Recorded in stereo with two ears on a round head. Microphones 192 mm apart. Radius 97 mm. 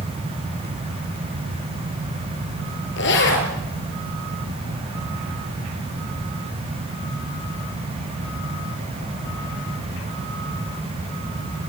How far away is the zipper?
About 5.5 m.